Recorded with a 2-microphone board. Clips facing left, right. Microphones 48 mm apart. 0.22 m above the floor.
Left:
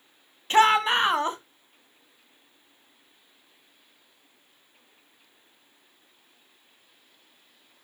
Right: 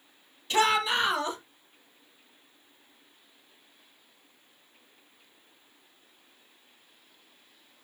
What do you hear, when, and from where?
0.5 s a shout: 40° left (ahead or behind), 1.8 m